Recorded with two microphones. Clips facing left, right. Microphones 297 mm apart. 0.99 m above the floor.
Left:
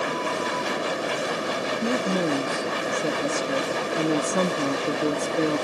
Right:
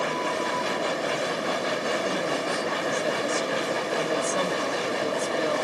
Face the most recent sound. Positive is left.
turn(degrees=55)  # may be behind; listen again after turning